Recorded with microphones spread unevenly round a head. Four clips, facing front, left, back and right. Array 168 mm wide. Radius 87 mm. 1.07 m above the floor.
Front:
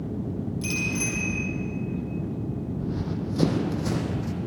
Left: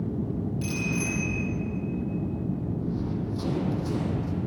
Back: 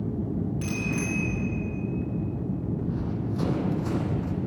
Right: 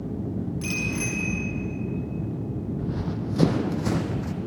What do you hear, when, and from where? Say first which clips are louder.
0.6 s a bicycle bell: even, even; 160° right, 10 m
2.8 s running footsteps: even, even; 55° right, 2.0 m; by 4.3 s 60° right, 3 m